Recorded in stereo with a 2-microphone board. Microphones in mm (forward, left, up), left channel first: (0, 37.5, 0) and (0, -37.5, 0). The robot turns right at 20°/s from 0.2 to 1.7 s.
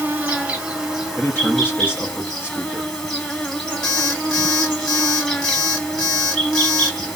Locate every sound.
0.0 s an insect: 20° right, 1.1 m; by 7.2 s 10° left, 1.1 m
1.1 s a man speaking: 20° left (ahead or behind), 0.7 m; by 2.9 s 25° left (ahead or behind), 0.7 m
3.8 s an alarm clock: 75° left (ahead or behind), 1.3 m